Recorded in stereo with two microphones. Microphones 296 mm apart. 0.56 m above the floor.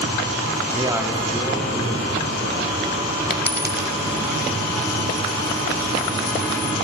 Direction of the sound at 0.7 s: 25° right (ahead or behind).